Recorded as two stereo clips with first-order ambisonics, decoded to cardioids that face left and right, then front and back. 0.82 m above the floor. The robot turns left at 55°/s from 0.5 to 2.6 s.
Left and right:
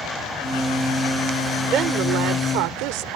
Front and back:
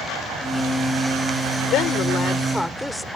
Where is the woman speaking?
30° right; by 3.2 s 85° right.